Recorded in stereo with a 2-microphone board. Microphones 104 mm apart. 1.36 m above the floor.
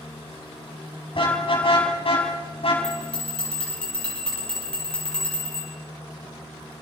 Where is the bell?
10° left (ahead or behind), 9 m.